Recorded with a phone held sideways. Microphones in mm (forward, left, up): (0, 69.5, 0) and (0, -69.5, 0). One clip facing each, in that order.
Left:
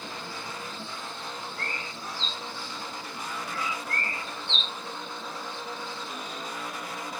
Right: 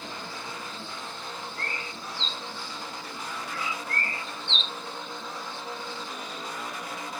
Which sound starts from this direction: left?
A bird, at 1.6 s.